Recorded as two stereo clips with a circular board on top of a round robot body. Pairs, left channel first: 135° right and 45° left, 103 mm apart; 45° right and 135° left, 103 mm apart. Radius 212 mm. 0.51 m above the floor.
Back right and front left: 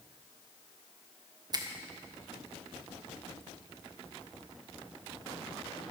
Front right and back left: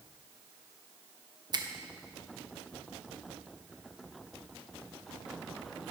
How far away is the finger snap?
About 1.5 m.